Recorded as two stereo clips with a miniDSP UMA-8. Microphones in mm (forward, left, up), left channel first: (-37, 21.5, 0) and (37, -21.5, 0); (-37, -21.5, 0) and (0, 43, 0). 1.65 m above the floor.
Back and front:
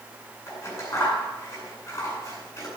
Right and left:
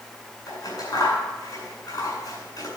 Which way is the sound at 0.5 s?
155° right.